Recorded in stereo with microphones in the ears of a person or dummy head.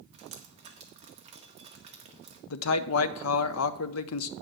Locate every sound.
0.1 s dripping: 30° right (ahead or behind), 1.5 m
2.5 s a man speaking: 80° left, 0.6 m